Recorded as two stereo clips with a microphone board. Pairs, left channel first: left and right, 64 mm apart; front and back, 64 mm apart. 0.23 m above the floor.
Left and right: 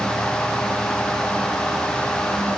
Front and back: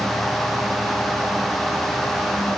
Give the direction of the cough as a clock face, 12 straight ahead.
I don't hear a cough.